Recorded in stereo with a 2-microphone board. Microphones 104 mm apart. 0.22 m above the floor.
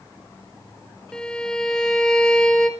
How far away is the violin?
About 0.6 m.